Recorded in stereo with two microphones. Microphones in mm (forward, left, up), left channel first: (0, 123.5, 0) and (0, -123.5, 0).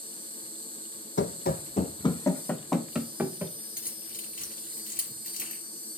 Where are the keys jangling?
35° left (ahead or behind), 2.5 m.